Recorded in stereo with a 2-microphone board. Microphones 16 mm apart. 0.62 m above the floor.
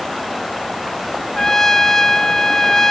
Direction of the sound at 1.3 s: 30° left (ahead or behind).